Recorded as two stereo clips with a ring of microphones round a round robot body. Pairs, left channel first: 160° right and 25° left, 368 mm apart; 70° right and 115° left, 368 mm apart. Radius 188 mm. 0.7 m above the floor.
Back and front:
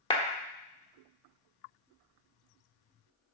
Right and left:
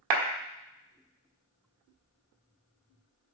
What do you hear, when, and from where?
0.1 s a clap: 125° left, 1.6 m